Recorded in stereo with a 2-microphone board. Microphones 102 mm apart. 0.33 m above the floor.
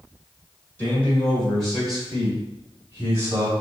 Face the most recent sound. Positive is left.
turn(degrees=-30)  # may be behind; listen again after turning